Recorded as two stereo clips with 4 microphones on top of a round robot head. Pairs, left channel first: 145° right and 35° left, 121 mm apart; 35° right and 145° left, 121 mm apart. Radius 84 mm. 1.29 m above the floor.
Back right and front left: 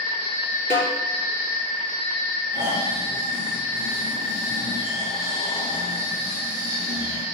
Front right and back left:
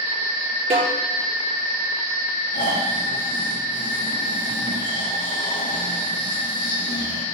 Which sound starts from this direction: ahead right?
Snoring, at 2.5 s.